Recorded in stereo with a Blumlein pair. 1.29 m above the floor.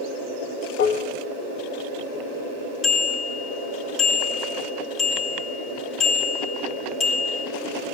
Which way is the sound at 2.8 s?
30° left.